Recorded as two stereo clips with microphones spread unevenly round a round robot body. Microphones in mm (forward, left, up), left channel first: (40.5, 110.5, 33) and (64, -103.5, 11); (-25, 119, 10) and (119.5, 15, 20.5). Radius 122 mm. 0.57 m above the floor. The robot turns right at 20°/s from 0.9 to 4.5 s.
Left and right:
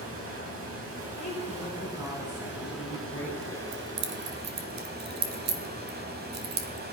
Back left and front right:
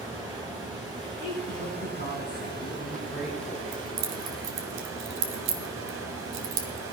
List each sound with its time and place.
0.0 s running water: 115° right, 3 m; by 6.9 s 40° right, 3 m
1.1 s a woman speaking: straight behind, 4 m; by 3.6 s 130° right, 4 m
3.7 s keys jangling: 60° right, 1.7 m; by 6.9 s 45° right, 1.7 m